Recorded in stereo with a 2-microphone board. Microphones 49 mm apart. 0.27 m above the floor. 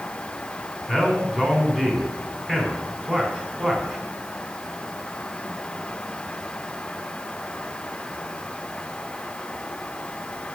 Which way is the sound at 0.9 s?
15° right (ahead or behind).